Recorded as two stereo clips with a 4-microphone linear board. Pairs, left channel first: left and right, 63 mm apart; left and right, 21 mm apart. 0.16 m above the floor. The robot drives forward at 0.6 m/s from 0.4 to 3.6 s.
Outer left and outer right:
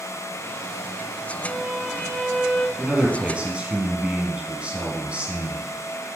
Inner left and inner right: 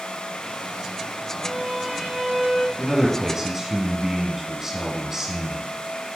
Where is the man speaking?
15° right (ahead or behind), 4 m.